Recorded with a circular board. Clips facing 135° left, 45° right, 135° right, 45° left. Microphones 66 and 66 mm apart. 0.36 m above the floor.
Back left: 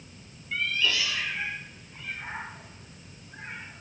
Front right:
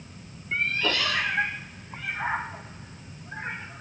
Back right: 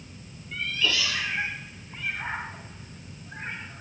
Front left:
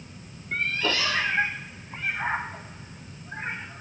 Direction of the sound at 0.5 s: 10° left.